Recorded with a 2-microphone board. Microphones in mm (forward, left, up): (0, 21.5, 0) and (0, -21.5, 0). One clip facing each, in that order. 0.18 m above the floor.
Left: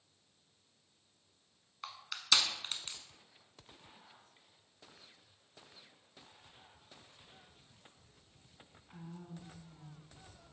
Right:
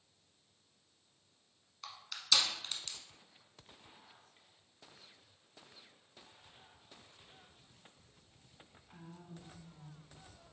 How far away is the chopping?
I don't hear chopping.